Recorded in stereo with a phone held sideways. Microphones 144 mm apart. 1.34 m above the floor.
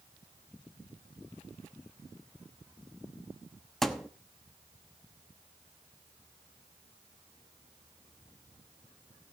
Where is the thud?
Centre (ahead or behind), 0.9 m.